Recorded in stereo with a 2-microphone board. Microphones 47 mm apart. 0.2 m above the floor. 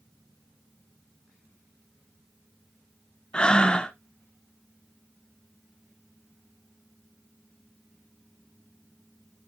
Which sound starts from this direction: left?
Breathing, at 3.3 s.